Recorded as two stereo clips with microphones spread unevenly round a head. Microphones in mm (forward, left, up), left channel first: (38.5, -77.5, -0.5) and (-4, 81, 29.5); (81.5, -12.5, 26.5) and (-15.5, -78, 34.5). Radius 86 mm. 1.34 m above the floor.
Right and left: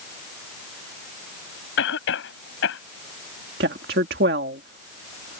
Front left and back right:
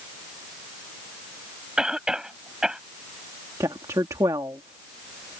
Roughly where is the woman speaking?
Behind left.